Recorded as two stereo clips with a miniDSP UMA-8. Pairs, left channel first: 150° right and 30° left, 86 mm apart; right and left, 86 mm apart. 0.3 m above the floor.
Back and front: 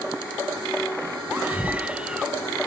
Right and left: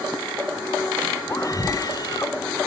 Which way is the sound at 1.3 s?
40° right.